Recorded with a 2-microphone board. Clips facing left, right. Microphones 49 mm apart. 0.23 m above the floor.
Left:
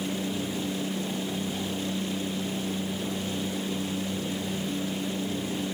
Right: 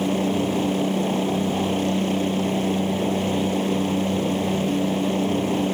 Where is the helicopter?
65° right (ahead or behind).